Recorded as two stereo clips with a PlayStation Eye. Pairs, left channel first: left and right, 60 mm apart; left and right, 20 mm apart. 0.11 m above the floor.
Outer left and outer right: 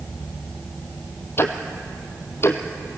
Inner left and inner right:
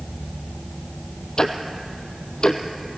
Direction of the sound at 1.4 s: 40° left (ahead or behind).